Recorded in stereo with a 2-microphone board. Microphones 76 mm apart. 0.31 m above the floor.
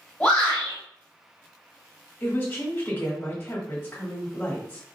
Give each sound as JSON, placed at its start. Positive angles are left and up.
{"t": 0.2, "sound": "a shout", "side_deg": 5, "distance_m": 1.8}
{"t": 2.2, "sound": "a woman speaking", "side_deg": 20, "distance_m": 1.4}